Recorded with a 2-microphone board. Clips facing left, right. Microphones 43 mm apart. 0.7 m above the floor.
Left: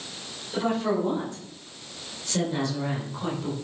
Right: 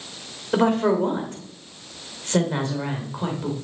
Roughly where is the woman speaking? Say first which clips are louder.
Right 6 dB; right.